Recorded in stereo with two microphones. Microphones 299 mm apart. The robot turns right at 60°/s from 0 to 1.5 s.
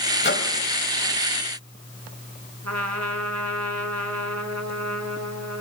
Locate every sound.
0.2 s a microwave: 35° left (ahead or behind), 2.5 m; by 0.5 s 50° left (ahead or behind), 2.5 m
2.6 s a trumpet: 60° right (ahead or behind), 2.5 m